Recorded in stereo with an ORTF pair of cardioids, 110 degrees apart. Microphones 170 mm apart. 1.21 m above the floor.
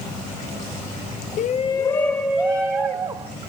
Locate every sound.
1.4 s a shout: 55° left, 0.6 m; by 3.4 s 25° right, 1.3 m